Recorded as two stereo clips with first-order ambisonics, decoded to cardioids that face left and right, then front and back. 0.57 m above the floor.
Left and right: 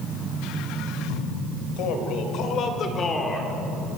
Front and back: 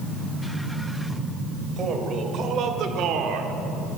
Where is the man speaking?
120° left, 3 m; by 3.6 s 175° right, 1.8 m.